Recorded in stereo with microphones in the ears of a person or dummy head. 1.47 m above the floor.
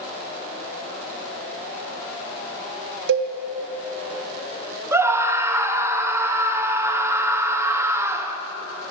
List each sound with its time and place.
3.1 s a cowbell: 70° right (ahead or behind), 0.8 m
4.9 s a scream: 10° right (ahead or behind), 0.7 m